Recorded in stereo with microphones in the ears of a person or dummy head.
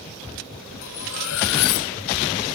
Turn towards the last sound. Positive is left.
turn(degrees=80)